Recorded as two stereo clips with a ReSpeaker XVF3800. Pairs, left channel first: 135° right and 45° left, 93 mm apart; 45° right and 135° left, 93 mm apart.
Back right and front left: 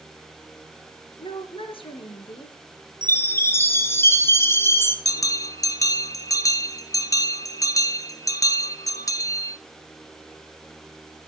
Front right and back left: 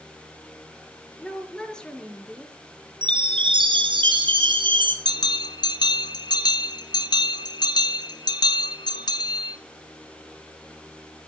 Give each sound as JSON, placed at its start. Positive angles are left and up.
{"t": 1.2, "sound": "a woman speaking", "azimuth_deg": -125, "distance_m": 4.0}
{"t": 3.0, "sound": "a chime", "azimuth_deg": 160, "distance_m": 4.0}
{"t": 5.0, "sound": "a bell", "azimuth_deg": -85, "distance_m": 1.2}